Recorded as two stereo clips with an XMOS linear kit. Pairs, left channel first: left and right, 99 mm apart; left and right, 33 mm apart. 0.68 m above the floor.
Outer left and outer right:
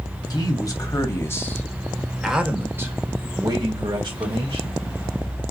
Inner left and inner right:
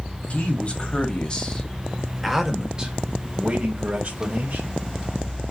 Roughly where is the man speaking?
Left.